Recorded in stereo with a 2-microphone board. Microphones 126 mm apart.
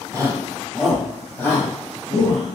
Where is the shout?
30° right (ahead or behind), 1.3 m; by 2.5 s 45° left (ahead or behind), 1.9 m.